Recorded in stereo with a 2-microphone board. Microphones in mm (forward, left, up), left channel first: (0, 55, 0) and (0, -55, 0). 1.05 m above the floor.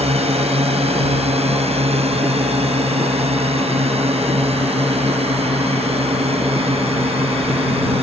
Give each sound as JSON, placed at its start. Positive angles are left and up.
{"t": 0.0, "sound": "a drone", "side_deg": -65}